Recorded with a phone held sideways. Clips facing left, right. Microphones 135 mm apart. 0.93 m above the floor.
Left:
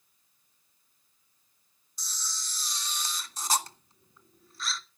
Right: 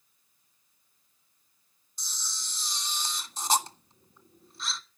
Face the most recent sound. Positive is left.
turn(degrees=-25)  # may be behind; listen again after turning